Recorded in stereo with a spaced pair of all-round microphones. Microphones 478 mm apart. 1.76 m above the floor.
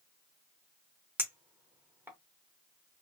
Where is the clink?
5° right (ahead or behind), 0.7 m.